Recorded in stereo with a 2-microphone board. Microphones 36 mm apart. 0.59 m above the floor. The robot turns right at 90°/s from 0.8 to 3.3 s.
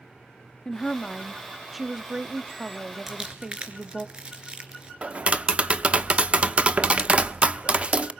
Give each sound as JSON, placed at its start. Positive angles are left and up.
{"t": 0.7, "sound": "a woman speaking", "side_deg": 20, "distance_m": 0.6}
{"t": 3.1, "sound": "crumpling", "side_deg": -10, "distance_m": 3.5}
{"t": 5.0, "sound": "tapping", "side_deg": -35, "distance_m": 0.8}